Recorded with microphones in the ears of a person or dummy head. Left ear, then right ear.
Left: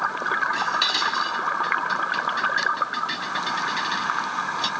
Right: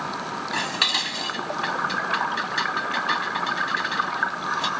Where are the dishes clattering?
15° right (ahead or behind).